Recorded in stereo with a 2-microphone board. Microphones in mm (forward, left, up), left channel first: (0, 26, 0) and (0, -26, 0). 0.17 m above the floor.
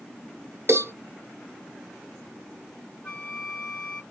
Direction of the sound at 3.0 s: 25° left (ahead or behind).